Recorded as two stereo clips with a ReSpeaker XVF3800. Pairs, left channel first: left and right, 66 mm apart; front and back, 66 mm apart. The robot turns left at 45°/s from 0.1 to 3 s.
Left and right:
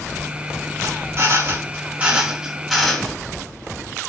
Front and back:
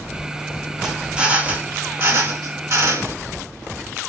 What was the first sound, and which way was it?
A drill, 95° right.